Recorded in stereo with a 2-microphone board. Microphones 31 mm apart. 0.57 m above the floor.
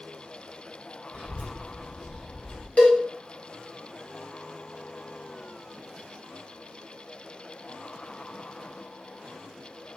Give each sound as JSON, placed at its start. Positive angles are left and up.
{"t": 1.1, "sound": "a child speaking", "side_deg": 45, "distance_m": 1.4}
{"t": 2.8, "sound": "a cowbell", "side_deg": 45, "distance_m": 0.6}